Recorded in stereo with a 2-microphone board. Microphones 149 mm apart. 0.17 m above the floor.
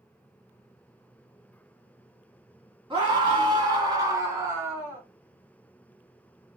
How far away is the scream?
About 1.3 m.